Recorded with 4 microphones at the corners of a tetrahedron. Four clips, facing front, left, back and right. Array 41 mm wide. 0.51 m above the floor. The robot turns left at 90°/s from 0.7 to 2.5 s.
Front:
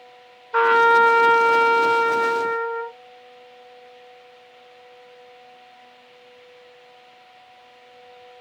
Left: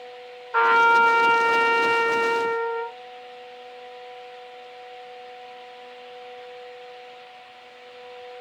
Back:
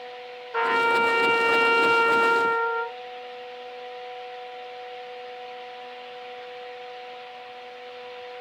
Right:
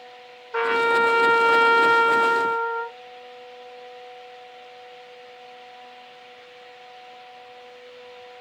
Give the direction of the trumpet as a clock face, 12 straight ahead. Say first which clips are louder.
Left 4 dB, front 7 dB; 12 o'clock.